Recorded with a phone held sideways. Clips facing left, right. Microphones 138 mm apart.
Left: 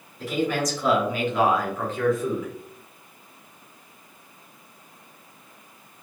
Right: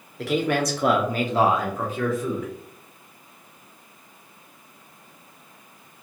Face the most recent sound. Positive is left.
turn(degrees=10)  # may be behind; listen again after turning